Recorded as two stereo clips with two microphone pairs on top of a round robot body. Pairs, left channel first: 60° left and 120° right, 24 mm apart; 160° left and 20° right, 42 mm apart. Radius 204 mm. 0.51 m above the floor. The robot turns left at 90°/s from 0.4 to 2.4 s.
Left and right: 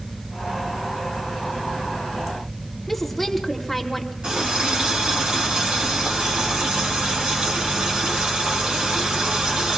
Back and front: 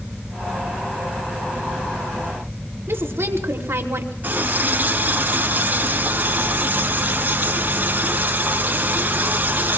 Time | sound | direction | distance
2.9 | a woman speaking | 25° right | 2.5 m
4.2 | a running tap | 70° right | 4.5 m